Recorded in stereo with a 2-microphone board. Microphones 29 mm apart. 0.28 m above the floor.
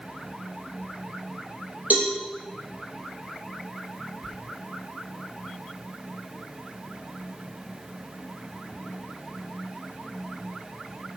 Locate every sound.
1.9 s a cowbell: 55° right (ahead or behind), 5.5 m
4.2 s whispering: 15° right (ahead or behind), 2.5 m